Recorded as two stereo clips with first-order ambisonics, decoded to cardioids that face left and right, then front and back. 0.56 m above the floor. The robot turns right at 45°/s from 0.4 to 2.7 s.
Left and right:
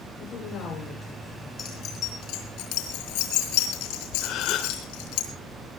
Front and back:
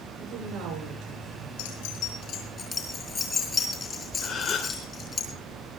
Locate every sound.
0.2 s a woman speaking: 145° left, 9.5 m; by 1.5 s 165° right, 9.5 m
1.6 s keys jangling: 20° left, 6.5 m; by 5.2 s 70° left, 6.5 m
4.2 s a gasp: 50° left, 2.5 m